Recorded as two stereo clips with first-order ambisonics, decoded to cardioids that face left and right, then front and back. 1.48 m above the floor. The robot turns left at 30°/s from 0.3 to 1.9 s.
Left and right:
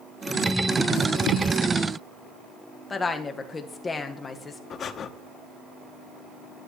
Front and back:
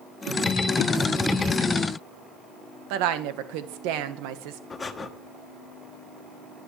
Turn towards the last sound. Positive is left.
turn(degrees=65)